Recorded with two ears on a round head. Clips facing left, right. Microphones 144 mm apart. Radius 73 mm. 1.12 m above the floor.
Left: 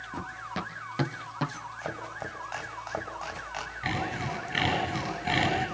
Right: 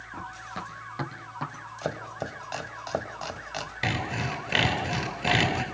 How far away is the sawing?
About 7.5 m.